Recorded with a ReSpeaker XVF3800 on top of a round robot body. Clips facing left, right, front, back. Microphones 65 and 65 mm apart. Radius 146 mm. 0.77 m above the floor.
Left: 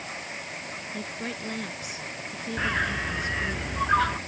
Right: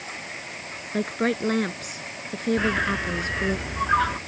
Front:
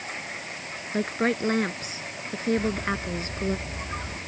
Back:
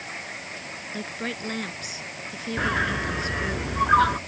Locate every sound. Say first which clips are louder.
0.9 s a woman speaking: right 13 dB, front 8 dB; 55° right
2.6 s a bird: left 1 dB, back 3 dB; 175° right